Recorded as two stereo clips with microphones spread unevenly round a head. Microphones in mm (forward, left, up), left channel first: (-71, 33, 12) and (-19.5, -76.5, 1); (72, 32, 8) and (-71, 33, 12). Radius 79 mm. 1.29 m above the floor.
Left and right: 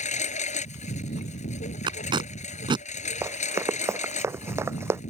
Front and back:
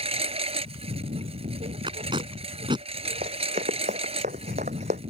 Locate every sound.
0.0 s a lawn mower: 135° left
1.9 s tape being pulled: 115° right
3.2 s running footsteps: 130° right; by 5.0 s 135° right